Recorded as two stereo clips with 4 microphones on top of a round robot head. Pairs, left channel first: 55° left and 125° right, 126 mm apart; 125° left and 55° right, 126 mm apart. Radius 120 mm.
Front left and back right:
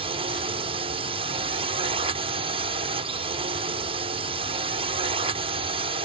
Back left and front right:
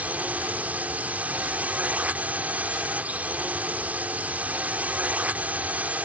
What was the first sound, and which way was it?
A drone, 130° right.